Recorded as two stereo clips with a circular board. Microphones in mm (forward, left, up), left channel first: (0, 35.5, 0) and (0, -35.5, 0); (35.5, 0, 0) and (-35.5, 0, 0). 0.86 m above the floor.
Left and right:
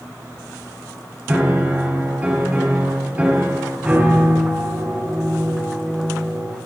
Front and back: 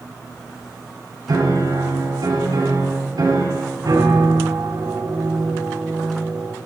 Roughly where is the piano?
Behind.